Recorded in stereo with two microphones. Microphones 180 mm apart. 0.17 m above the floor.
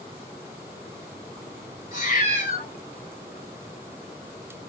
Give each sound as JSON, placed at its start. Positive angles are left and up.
{"t": 1.9, "sound": "a cat meowing", "side_deg": 55, "distance_m": 0.8}